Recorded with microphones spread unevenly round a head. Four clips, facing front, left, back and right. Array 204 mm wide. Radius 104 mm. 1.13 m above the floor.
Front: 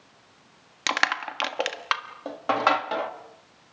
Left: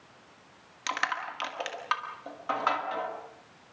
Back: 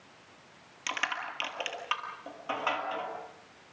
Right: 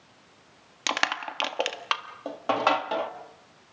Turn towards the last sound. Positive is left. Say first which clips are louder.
# right 3 dB, front 8 dB
turn(degrees=-50)